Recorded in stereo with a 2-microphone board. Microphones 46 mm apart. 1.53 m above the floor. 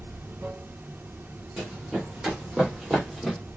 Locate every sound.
0.0 s running water: 45° right (ahead or behind), 1.0 m
1.6 s running footsteps: 10° right (ahead or behind), 4 m; by 3.4 s centre (ahead or behind), 2.5 m